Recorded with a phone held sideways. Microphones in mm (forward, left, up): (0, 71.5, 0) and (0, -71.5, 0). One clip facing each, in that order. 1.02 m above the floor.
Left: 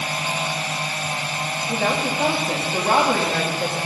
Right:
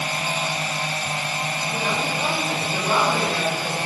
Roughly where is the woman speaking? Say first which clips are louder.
Left 5 dB; left.